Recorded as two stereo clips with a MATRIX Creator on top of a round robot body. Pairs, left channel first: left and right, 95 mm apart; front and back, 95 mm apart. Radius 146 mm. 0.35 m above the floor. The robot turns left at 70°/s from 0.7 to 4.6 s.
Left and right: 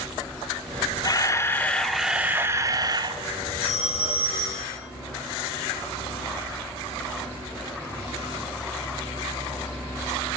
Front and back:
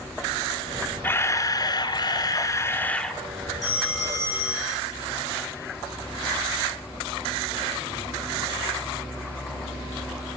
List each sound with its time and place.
1.0 s a camera shutter: 65° left, 0.7 m; by 3.2 s 90° right, 0.7 m
3.6 s a phone ringing: 95° left, 4 m; by 4.8 s 25° left, 4 m